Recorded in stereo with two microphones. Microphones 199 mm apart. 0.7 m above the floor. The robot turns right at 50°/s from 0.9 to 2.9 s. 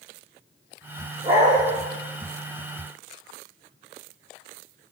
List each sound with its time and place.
1.2 s a dog barking: 25° right (ahead or behind), 8 m; by 1.6 s 40° right (ahead or behind), 8 m